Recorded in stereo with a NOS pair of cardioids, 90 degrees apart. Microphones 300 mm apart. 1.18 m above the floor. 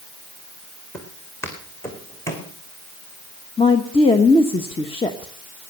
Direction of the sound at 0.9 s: 10° left.